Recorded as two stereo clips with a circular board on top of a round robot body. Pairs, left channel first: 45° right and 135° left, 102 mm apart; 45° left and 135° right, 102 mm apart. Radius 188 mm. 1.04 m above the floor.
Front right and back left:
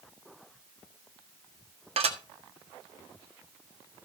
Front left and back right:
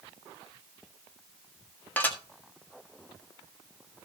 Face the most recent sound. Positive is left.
turn(degrees=120)